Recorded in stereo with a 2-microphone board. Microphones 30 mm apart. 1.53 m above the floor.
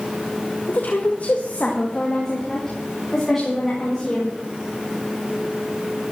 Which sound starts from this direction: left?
A woman speaking, at 0.7 s.